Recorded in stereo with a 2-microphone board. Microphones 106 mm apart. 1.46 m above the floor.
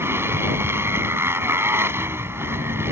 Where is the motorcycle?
20° right (ahead or behind).